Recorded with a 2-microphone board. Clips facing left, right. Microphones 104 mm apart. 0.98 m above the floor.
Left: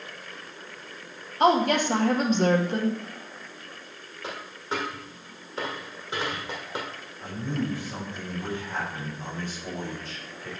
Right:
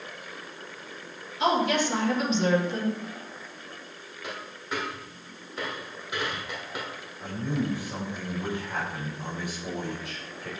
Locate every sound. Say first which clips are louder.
1.4 s a woman speaking: left 3 dB; 50° left (ahead or behind), 1.3 m
4.2 s a dropped coin: left 3 dB; 25° left (ahead or behind), 2 m
7.2 s a man speaking: right 1 dB; 15° right (ahead or behind), 4 m